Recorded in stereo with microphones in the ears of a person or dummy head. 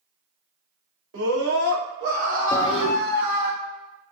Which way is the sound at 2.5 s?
35° left (ahead or behind).